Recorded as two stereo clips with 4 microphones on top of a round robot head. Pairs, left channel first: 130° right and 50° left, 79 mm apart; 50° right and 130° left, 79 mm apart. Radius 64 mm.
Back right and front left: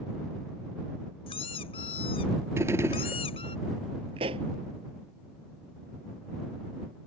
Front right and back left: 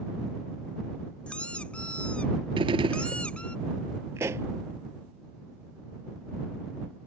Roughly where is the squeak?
Behind right.